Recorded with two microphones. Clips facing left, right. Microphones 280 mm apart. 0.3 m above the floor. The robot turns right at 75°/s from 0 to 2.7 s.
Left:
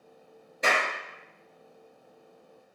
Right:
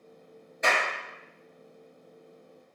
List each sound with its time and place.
0.6 s a clap: 35° left (ahead or behind), 1.4 m; by 0.9 s 40° left (ahead or behind), 1.4 m